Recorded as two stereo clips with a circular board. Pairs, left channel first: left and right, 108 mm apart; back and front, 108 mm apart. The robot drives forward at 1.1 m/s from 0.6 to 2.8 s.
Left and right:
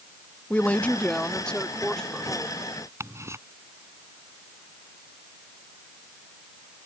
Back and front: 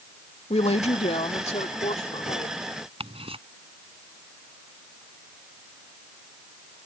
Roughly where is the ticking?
Ahead right.